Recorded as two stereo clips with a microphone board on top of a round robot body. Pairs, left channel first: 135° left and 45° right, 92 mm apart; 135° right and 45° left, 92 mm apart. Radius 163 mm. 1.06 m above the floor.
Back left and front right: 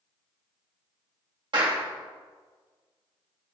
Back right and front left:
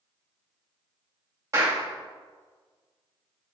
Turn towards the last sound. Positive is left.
turn(degrees=-10)